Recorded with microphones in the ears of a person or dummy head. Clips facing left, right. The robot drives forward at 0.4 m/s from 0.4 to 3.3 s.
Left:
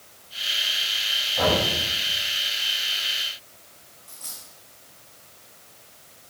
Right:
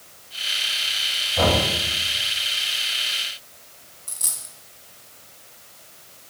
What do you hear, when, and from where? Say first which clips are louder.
1.4 s knocking: right 2 dB; 65° right (ahead or behind), 5.5 m; by 1.7 s 60° right (ahead or behind), 5.5 m
4.1 s a dropped coin: right 3 dB; 60° right (ahead or behind), 2 m